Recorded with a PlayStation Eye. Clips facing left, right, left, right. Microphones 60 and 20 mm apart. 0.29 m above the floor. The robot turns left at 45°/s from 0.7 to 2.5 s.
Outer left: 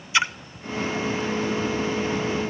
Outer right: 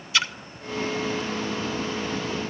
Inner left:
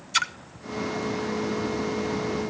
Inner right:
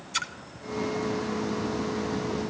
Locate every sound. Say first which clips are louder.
0.1 s a splash: outer left 3 dB, inner left 6 dB; 25° left (ahead or behind), 0.7 m